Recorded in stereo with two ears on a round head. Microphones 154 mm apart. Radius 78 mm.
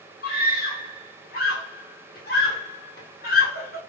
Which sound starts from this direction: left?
A scream, at 0.2 s.